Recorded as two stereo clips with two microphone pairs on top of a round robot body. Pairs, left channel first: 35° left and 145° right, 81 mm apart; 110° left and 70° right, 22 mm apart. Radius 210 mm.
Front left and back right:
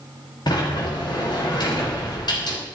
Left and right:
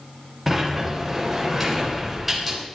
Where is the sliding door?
10° left, 3 m.